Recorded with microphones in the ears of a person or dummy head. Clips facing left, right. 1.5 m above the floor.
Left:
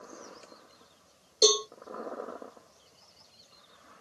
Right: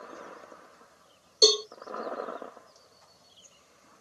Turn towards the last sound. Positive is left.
turn(degrees=0)  # may be behind; listen again after turning